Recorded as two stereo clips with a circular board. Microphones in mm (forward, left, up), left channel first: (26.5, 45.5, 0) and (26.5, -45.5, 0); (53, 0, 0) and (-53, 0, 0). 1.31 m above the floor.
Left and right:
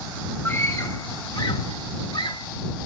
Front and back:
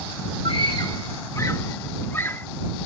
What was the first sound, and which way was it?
A scream, 25° left.